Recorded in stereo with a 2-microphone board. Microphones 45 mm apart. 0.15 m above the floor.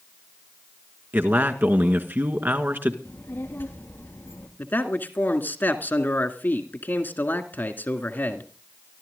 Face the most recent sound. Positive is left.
turn(degrees=45)  # may be behind; listen again after turning